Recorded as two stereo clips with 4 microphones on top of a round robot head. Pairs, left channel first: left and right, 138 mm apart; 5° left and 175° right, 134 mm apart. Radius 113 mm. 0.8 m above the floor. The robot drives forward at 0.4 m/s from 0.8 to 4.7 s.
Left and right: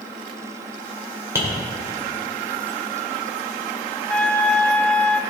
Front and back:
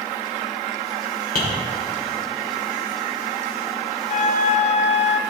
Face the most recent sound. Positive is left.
turn(degrees=10)